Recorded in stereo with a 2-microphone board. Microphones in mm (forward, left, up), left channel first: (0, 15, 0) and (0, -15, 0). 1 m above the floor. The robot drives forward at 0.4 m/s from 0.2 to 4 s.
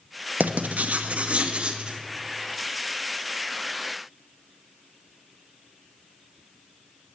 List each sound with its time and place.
0.4 s writing: 75° right (ahead or behind), 0.6 m; by 2.0 s 35° right (ahead or behind), 1.0 m